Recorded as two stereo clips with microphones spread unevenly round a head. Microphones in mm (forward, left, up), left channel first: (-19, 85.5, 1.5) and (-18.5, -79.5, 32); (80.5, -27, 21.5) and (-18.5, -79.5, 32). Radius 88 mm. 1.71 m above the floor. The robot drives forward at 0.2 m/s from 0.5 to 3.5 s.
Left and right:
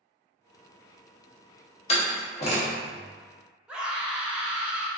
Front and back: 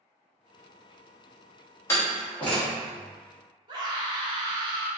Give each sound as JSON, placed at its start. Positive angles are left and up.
{"t": 1.9, "sound": "a door slam", "azimuth_deg": 90, "distance_m": 0.8}
{"t": 3.7, "sound": "a scream", "azimuth_deg": -160, "distance_m": 0.6}